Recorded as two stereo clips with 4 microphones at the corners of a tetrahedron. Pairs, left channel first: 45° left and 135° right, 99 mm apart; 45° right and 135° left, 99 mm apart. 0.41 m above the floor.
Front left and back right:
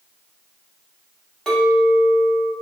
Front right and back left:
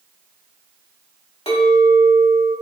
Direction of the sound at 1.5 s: 35° right.